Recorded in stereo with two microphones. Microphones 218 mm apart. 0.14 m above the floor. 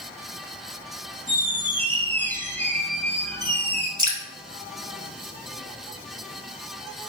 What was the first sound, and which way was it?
A squeak, 10° left (ahead or behind).